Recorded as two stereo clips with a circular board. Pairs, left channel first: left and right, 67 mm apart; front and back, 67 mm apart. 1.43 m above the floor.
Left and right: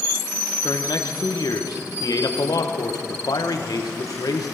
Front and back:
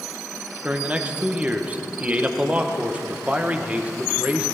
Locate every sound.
0.6 s a man speaking: 110° left, 1.3 m